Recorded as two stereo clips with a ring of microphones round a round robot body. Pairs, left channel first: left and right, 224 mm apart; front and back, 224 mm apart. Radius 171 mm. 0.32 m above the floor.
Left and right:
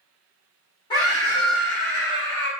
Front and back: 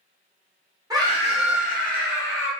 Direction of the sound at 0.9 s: 130° left.